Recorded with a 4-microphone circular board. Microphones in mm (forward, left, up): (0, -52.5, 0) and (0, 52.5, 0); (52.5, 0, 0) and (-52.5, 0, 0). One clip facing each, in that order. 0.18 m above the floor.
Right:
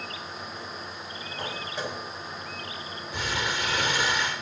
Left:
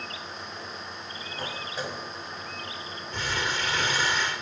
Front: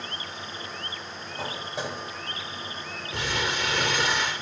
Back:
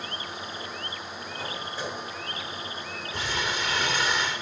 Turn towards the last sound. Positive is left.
turn(degrees=-10)